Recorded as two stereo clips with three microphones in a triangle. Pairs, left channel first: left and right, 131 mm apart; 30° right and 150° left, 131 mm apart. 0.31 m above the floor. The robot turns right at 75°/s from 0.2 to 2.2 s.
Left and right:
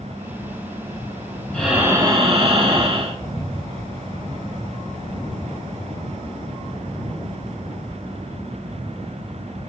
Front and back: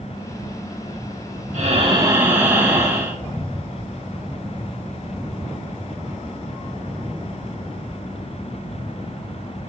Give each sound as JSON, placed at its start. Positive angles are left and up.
{"t": 1.5, "sound": "breathing", "azimuth_deg": 170, "distance_m": 3.5}